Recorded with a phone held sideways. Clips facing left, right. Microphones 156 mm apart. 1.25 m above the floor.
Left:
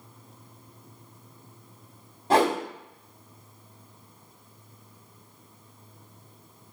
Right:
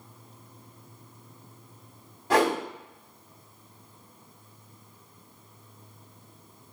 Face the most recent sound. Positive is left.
turn(degrees=30)  # may be behind; listen again after turning